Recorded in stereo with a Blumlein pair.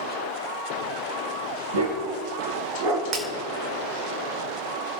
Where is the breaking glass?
25° right, 2.5 m.